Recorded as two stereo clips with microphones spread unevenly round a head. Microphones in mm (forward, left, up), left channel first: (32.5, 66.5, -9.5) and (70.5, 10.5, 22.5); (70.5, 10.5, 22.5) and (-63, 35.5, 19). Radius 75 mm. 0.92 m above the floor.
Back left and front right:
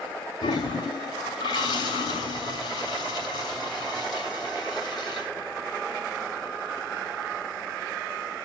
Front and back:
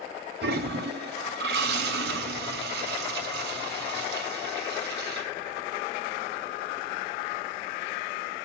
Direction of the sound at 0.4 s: 175° right.